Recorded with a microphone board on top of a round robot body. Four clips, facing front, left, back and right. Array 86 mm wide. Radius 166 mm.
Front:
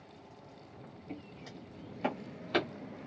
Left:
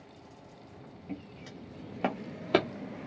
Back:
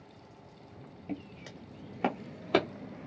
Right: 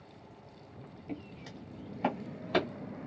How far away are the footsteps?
About 0.6 m.